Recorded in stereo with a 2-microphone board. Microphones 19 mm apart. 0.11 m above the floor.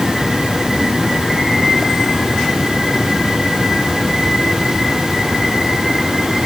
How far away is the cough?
No cough in this recording.